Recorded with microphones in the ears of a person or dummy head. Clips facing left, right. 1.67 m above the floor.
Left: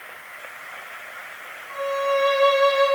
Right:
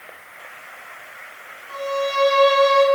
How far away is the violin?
About 4.5 m.